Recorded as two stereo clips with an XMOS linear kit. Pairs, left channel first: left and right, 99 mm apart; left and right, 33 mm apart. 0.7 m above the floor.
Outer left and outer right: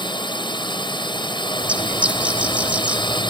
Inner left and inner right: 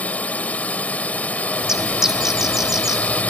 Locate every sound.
0.0 s a drone: 55° left (ahead or behind)
1.6 s a bird: 15° right (ahead or behind)